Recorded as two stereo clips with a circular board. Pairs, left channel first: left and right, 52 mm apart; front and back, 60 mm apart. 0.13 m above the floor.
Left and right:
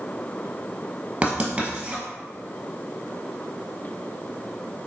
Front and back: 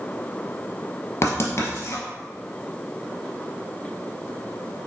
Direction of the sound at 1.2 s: 30° right.